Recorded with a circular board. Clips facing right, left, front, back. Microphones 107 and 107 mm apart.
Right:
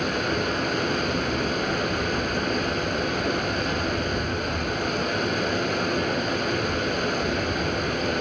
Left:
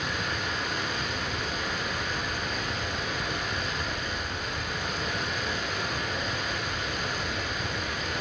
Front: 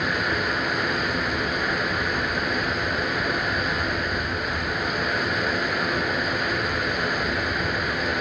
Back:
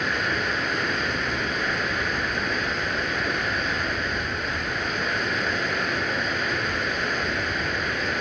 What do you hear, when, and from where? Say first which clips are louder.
0.0 s running water: right 7 dB, front 1 dB; 85° right, 1.6 m